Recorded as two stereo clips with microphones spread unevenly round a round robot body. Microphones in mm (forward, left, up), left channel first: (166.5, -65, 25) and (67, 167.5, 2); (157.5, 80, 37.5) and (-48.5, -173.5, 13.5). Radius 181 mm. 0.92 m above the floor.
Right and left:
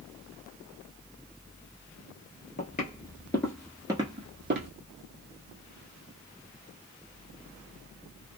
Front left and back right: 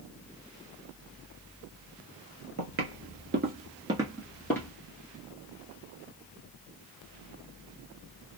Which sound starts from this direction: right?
Footsteps, at 2.6 s.